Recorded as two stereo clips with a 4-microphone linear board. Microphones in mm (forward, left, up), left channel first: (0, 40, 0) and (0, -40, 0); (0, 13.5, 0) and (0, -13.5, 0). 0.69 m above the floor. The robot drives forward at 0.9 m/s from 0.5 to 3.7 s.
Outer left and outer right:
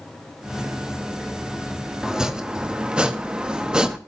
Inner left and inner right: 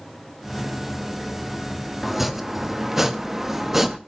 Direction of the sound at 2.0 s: 10° right (ahead or behind).